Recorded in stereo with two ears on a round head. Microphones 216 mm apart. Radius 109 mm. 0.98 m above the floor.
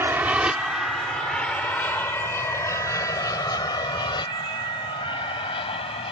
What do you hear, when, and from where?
0.0 s an aircraft: 10° right (ahead or behind); by 6.1 s 20° left (ahead or behind)